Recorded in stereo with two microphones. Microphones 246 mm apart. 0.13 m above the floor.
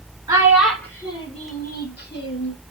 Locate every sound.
0.3 s a child speaking: 15° right (ahead or behind), 1.0 m; by 2.5 s 55° left (ahead or behind), 1.6 m